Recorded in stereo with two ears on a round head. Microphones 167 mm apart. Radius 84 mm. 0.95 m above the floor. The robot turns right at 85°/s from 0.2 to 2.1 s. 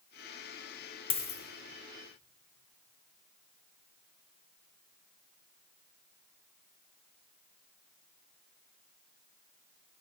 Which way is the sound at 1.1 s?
25° left (ahead or behind).